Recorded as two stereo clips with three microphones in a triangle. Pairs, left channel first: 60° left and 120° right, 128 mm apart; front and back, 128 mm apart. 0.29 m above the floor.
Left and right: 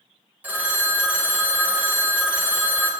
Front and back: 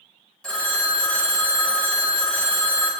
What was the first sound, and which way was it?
A phone ringing, 65° right.